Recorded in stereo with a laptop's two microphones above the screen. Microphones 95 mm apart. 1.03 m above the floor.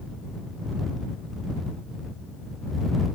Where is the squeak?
No squeak in this recording.